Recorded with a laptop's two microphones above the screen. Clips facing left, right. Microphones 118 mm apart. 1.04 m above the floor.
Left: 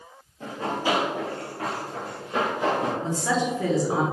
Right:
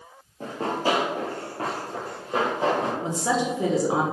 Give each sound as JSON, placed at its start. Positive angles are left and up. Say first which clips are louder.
{"t": 0.4, "sound": "running footsteps", "louder": "right 2 dB", "side_deg": -40, "distance_m": 1.3}
{"t": 3.0, "sound": "a woman speaking", "louder": "even", "side_deg": -20, "distance_m": 0.8}